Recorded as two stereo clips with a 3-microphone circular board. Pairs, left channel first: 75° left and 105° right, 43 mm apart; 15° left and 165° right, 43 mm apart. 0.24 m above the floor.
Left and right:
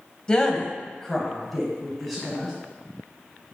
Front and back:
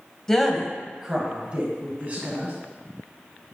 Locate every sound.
0.3 s a woman speaking: 70° left, 1.2 m; by 2.5 s 170° left, 1.8 m